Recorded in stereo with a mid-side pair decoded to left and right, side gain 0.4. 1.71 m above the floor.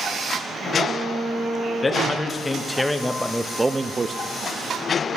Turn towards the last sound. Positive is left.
turn(degrees=-40)